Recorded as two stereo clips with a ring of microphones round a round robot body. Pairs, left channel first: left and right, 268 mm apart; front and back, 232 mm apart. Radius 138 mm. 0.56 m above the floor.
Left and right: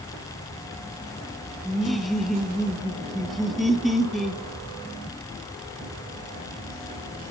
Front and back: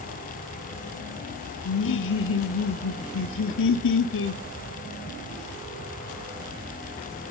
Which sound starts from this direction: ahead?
Laughter, at 1.6 s.